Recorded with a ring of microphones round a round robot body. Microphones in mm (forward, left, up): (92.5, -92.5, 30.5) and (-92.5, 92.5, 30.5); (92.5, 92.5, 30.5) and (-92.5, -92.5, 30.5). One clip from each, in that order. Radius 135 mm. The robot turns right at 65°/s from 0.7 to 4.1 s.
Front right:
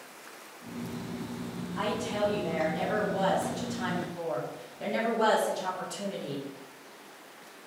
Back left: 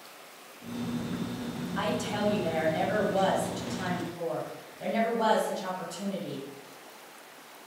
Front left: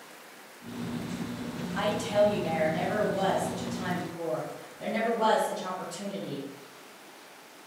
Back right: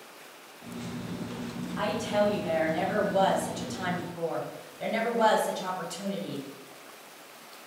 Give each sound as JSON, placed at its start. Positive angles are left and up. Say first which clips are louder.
{"t": 1.8, "sound": "a woman speaking", "louder": "front right 1 dB, front left 2 dB", "azimuth_deg": 85, "distance_m": 1.7}